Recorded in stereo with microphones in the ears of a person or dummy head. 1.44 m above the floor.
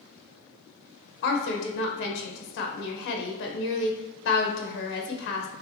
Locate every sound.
1.2 s a woman speaking: 55° left (ahead or behind), 1.0 m